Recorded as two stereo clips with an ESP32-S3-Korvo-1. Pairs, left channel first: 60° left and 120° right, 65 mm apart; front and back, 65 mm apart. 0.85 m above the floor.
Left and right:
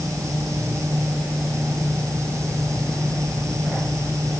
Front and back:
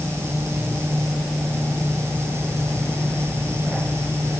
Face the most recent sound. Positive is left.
No sound to turn to.